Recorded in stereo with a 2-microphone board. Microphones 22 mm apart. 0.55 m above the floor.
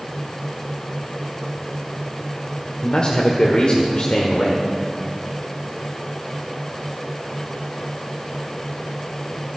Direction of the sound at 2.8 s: 45° left (ahead or behind).